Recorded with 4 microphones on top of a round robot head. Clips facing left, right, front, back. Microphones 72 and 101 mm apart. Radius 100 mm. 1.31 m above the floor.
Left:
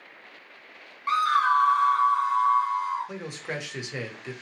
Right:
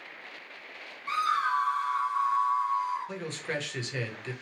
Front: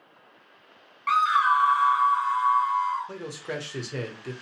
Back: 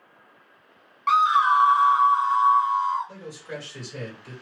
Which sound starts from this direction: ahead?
A man speaking, at 3.1 s.